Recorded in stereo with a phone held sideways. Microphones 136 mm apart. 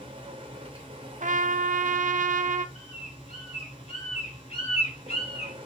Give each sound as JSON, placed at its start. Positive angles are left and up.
{"t": 0.0, "sound": "a machine running", "side_deg": -40, "distance_m": 3.0}
{"t": 1.2, "sound": "a trumpet", "side_deg": -70, "distance_m": 0.6}
{"t": 2.8, "sound": "a bird", "side_deg": 50, "distance_m": 3.0}